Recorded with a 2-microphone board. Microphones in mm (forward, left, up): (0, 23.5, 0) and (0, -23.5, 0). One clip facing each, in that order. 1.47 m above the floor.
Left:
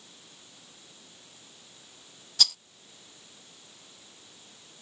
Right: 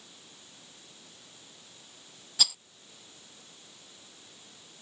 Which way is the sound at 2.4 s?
5° right (ahead or behind).